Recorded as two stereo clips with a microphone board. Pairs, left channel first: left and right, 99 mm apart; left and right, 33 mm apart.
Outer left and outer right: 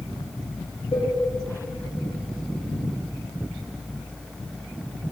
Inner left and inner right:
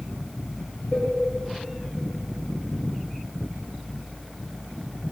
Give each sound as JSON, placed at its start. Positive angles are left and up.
{"t": 0.9, "sound": "a cowbell", "side_deg": 55, "distance_m": 3.0}